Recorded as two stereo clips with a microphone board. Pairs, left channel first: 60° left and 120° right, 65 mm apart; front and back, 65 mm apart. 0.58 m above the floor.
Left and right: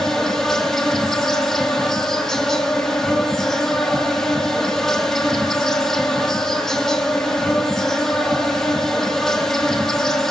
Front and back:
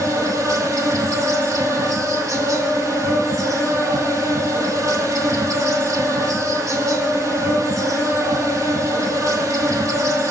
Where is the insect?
145° left, 4 m.